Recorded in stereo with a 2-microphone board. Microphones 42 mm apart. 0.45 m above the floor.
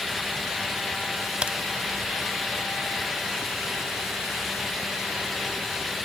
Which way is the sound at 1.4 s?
25° right (ahead or behind).